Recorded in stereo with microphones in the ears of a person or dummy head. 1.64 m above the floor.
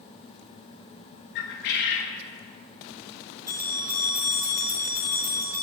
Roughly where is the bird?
Left.